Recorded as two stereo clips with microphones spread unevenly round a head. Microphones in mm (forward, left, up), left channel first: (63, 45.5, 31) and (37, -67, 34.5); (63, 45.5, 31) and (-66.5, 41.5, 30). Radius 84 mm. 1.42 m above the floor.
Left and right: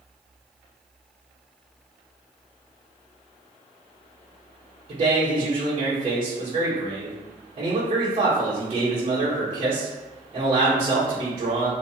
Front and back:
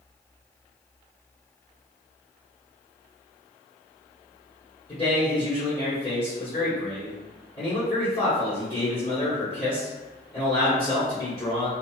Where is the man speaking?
65° right, 1.2 m.